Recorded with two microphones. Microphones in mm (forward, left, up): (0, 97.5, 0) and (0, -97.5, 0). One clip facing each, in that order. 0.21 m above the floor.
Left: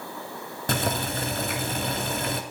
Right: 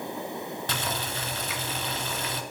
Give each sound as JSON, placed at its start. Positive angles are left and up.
{"t": 0.7, "sound": "boiling", "side_deg": 50, "distance_m": 0.6}